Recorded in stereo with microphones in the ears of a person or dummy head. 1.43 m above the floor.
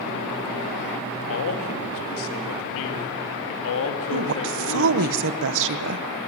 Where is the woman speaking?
70° right (ahead or behind), 1.0 m.